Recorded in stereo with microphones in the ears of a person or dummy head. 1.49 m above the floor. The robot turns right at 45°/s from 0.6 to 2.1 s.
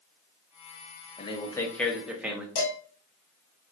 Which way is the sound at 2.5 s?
70° left (ahead or behind).